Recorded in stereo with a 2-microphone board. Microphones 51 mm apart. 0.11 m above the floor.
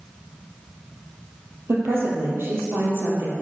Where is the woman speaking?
50° right (ahead or behind), 2.5 m.